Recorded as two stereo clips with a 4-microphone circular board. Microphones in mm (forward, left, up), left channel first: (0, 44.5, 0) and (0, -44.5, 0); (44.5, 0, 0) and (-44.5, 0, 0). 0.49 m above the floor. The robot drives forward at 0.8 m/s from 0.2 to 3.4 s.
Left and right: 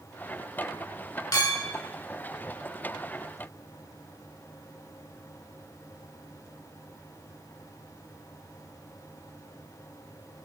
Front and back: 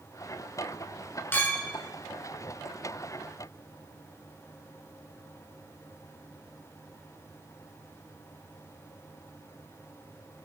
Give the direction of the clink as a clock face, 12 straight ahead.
10 o'clock.